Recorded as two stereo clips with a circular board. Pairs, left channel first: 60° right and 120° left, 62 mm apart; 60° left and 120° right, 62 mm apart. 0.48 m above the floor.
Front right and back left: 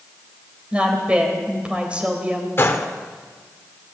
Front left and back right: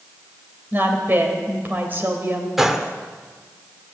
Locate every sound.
0.7 s a woman speaking: 170° right, 2.5 m
2.6 s a gunshot: 40° right, 1.0 m